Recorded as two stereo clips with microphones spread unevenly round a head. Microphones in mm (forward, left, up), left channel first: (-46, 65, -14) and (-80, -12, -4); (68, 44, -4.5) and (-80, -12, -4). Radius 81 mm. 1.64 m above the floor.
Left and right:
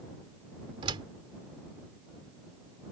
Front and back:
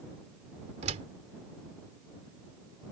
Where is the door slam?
110° right.